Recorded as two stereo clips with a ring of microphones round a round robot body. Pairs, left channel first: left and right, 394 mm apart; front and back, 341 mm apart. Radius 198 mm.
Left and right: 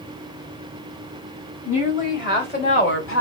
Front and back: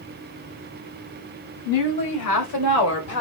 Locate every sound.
1.6 s a woman speaking: 15° left, 2.5 m; by 3.2 s 40° left, 2 m